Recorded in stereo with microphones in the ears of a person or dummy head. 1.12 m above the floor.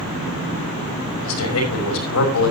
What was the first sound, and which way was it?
A man speaking, 80° left.